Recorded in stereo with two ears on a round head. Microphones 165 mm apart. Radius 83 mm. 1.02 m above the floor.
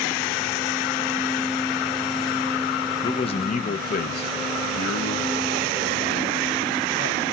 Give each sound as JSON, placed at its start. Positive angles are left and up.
{"t": 3.0, "sound": "a man speaking", "side_deg": 20, "distance_m": 0.7}